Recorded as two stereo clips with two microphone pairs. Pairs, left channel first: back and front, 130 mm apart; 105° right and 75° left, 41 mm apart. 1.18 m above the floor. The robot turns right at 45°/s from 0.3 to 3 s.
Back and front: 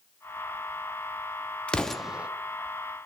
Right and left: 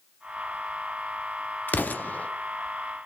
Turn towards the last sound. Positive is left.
turn(degrees=-45)